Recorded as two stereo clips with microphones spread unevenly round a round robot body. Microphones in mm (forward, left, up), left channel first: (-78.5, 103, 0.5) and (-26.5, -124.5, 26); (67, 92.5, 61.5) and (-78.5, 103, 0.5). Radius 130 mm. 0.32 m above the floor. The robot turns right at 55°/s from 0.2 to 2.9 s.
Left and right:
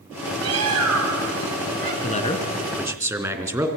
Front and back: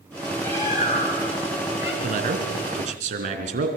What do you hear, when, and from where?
0.4 s a bird: 100° right, 3 m; by 1.9 s 15° right, 3 m
2.0 s a man speaking: 155° left, 3 m; by 3.7 s 155° right, 3 m